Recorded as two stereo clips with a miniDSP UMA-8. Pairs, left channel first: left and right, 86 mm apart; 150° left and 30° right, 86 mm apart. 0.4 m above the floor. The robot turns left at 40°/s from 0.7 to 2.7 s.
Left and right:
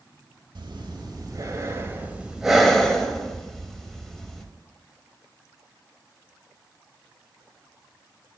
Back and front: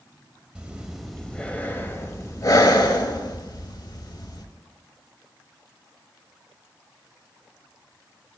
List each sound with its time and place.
0.6 s breathing: 105° right, 0.7 m; by 4.5 s 175° left, 0.7 m